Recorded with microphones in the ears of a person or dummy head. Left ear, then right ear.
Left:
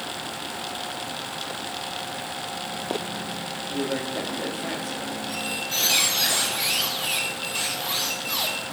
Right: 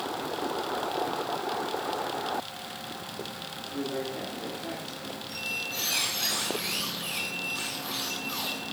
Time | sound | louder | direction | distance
3.7 | a man speaking | left 5 dB | 40° left (ahead or behind) | 1.3 m
5.3 | a squeak | left 3 dB | 35° left (ahead or behind) | 2 m